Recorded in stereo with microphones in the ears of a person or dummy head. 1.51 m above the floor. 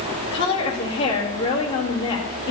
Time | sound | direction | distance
0.3 | a woman speaking | 30° left (ahead or behind) | 2.5 m